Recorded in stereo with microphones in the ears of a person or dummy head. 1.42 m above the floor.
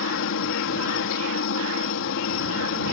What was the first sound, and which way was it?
A helicopter, 65° left (ahead or behind).